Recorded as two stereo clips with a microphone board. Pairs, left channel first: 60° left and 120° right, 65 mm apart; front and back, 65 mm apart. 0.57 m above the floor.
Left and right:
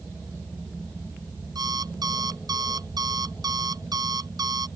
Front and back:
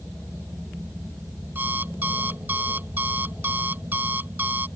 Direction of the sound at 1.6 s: 120° right.